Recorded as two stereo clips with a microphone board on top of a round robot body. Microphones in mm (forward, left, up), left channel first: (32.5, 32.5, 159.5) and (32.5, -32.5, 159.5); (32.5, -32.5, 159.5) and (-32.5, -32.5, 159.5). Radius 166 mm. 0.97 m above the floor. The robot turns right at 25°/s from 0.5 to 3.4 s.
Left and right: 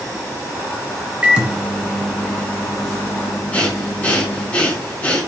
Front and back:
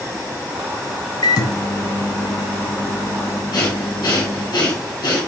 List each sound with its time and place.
1.2 s a microwave: 15° right, 1.1 m; by 4.5 s 40° left, 1.1 m
3.5 s breathing: 20° left, 2 m